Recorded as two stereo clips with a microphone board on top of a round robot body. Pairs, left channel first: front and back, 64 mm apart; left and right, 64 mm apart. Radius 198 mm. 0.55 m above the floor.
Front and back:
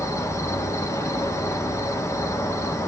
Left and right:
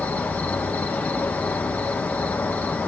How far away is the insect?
About 1.8 m.